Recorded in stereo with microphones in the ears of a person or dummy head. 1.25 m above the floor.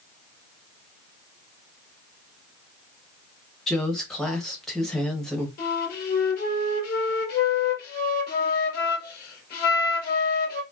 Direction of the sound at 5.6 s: 55° left (ahead or behind).